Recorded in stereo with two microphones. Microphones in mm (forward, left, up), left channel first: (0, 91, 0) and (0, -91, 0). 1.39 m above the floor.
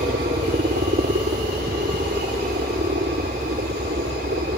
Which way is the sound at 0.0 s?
65° right (ahead or behind).